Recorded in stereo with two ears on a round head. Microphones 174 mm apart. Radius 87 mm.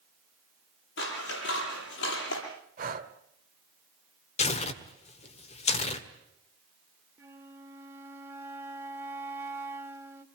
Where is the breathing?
45° right (ahead or behind), 2 m.